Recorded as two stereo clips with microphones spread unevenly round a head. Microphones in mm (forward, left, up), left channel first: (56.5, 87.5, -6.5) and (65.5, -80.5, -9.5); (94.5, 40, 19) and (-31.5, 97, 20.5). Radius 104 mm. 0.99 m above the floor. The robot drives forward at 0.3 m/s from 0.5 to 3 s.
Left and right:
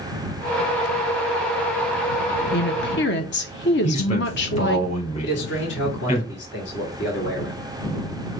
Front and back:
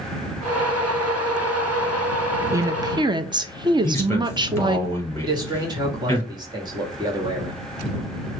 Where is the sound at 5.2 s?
95° left, 2.0 m.